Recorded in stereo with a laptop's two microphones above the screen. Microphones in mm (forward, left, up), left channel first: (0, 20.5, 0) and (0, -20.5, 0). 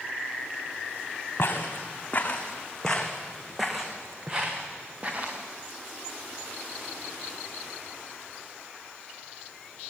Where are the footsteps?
50° left (ahead or behind), 3.5 m; by 5.4 s 35° right (ahead or behind), 5 m.